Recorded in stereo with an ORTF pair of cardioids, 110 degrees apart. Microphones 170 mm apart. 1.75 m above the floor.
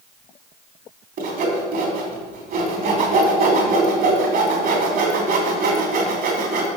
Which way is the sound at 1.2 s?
65° right.